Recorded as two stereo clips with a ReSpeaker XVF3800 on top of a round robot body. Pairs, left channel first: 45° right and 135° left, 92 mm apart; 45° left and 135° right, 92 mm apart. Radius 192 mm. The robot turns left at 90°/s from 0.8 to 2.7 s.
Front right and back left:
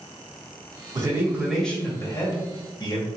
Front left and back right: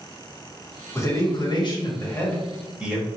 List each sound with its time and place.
0.9 s a man speaking: 100° left, 1.5 m; by 3.1 s 55° right, 1.5 m